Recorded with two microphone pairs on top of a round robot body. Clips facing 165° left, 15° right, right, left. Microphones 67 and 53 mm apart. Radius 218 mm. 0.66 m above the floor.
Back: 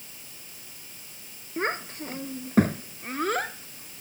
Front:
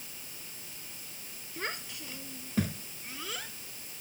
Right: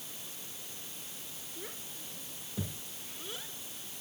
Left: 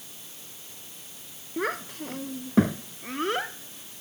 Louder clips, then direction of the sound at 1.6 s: Back 10 dB, left 19 dB; 110° left.